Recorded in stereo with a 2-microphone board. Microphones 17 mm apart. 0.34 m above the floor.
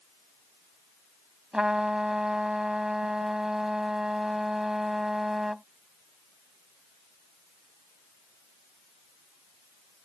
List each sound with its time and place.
1.5 s a trumpet: 40° right (ahead or behind)